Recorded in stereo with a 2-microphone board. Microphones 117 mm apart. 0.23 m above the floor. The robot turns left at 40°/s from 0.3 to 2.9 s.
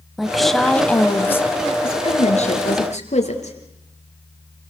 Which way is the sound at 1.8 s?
125° left.